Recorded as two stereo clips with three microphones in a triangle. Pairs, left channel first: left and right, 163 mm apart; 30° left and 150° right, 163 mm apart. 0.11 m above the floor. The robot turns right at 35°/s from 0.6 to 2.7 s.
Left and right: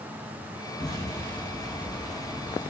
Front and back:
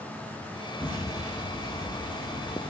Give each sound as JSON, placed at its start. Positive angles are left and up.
{"t": 0.8, "sound": "an explosion", "azimuth_deg": 130, "distance_m": 4.0}